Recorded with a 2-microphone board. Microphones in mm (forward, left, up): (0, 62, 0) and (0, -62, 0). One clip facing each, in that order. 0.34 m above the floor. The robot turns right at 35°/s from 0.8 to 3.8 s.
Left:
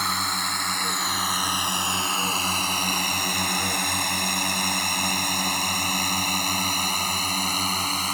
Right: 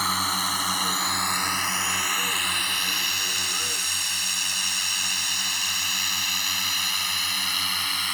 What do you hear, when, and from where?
0.0 s a drone: centre (ahead or behind); by 8.1 s 40° left (ahead or behind)